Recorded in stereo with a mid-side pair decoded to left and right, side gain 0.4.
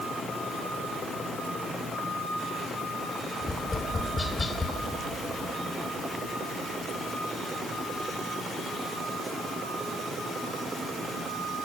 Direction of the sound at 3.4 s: 30° left.